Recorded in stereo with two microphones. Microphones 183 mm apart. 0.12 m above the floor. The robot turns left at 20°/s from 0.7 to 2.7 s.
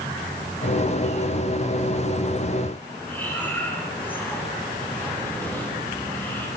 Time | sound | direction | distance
3.1 | breathing | 10° left (ahead or behind) | 8 m